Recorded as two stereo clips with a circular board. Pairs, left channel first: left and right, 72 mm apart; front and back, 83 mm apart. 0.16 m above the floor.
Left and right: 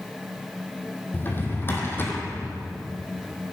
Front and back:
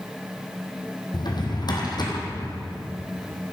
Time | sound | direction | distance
1.1 | a drawer | 30° left | 2 m